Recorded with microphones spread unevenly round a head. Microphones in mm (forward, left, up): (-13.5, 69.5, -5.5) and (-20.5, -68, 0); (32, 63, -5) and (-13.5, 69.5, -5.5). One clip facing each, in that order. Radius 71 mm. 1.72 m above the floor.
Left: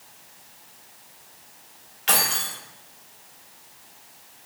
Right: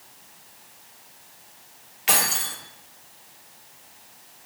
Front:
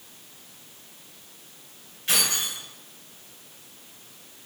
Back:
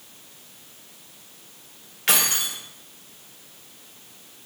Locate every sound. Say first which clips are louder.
2.1 s keys jangling: even, back 3 dB; 175° right, 1.2 m